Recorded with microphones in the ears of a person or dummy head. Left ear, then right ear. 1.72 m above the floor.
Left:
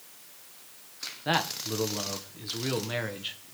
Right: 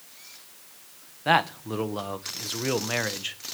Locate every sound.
1.2 s a man speaking: 25° right (ahead or behind), 1.0 m